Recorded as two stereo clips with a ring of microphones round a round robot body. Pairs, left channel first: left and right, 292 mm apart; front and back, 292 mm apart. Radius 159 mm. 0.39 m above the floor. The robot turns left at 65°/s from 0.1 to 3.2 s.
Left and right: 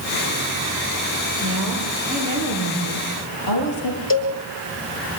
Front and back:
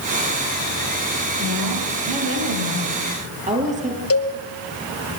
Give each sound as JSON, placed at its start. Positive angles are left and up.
{"t": 1.4, "sound": "a woman speaking", "azimuth_deg": -130, "distance_m": 9.0}
{"t": 4.1, "sound": "a cowbell", "azimuth_deg": 40, "distance_m": 4.0}